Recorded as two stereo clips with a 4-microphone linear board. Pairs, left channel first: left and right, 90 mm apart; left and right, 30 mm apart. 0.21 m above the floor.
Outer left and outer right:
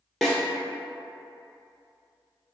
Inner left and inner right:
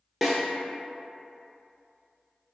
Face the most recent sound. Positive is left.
turn(degrees=5)  # may be behind; listen again after turning